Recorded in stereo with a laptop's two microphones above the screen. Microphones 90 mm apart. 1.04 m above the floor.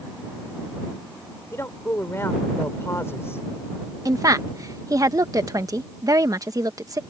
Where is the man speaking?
25° left (ahead or behind).